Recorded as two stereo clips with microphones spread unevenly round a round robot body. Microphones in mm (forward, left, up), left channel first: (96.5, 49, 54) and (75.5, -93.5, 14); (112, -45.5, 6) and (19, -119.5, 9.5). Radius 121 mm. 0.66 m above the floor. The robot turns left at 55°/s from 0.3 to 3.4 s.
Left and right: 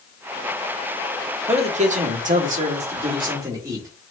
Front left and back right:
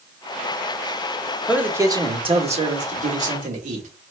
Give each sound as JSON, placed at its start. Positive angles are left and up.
{"t": 1.5, "sound": "a man speaking", "azimuth_deg": -60, "distance_m": 1.4}